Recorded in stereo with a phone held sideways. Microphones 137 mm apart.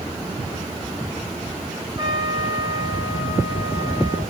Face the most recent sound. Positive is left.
turn(degrees=-35)  # may be behind; listen again after turning